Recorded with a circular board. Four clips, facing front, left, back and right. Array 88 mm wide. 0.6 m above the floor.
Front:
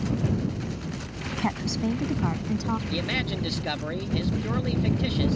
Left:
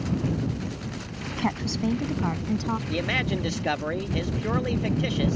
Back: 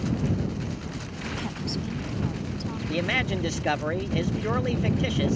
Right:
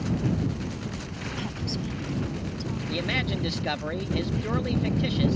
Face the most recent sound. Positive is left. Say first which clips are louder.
# left 2 dB, back 2 dB
turn(degrees=150)